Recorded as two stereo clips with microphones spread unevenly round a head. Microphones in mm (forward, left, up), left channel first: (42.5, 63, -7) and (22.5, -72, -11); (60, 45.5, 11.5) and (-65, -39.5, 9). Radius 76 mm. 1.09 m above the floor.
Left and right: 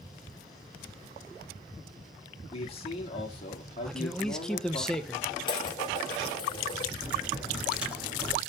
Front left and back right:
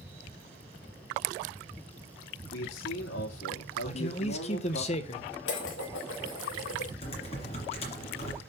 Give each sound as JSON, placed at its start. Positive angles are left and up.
{"t": 2.5, "sound": "a man speaking", "azimuth_deg": 35, "distance_m": 2.5}
{"t": 3.9, "sound": "a man speaking", "azimuth_deg": -5, "distance_m": 0.9}
{"t": 5.5, "sound": "dishes clattering", "azimuth_deg": 25, "distance_m": 2.0}
{"t": 7.0, "sound": "typing on a keyboard", "azimuth_deg": -15, "distance_m": 2.5}